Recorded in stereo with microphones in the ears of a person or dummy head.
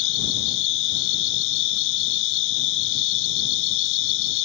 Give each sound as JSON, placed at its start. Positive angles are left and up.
{"t": 0.0, "sound": "an insect", "side_deg": 70}